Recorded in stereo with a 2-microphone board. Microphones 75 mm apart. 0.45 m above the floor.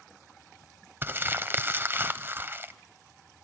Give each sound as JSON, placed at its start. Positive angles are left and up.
{"t": 1.0, "sound": "crumpling", "side_deg": -30, "distance_m": 0.7}